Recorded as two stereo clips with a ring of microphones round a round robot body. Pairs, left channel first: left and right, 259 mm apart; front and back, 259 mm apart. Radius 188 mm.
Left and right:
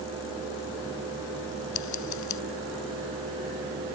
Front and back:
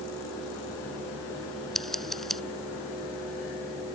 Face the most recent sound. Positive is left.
turn(degrees=90)